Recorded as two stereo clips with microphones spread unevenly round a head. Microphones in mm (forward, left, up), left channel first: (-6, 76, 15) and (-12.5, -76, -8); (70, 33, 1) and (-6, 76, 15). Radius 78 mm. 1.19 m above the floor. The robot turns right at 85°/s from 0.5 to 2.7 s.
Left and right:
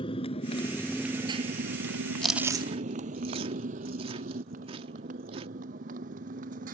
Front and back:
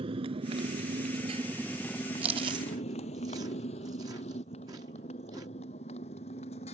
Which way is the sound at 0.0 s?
145° left.